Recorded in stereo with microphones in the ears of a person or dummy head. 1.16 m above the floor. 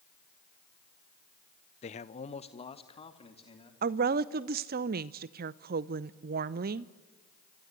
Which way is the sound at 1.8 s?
30° left (ahead or behind).